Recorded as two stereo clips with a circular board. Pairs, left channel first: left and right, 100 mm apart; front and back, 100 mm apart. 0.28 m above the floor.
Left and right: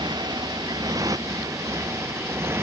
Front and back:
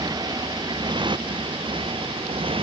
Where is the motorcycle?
135° right; by 2.6 s 155° right.